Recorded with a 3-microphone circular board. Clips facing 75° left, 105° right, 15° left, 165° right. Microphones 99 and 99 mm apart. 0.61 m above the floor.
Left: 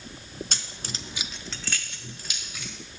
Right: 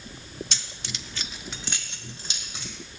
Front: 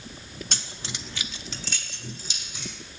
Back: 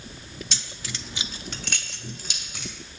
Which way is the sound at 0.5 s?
45° left.